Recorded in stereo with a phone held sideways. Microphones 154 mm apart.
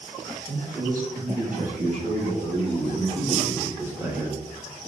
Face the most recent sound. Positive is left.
turn(degrees=-5)  # may be behind; listen again after turning